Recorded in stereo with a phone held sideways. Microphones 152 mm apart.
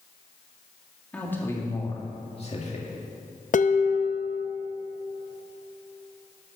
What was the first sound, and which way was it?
A man speaking, 10° left (ahead or behind).